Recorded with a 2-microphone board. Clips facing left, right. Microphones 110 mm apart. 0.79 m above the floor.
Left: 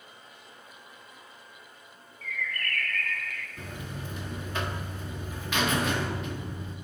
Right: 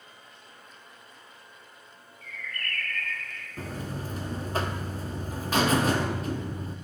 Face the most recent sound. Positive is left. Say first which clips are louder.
# right 7 dB
turn(degrees=-35)  # may be behind; listen again after turning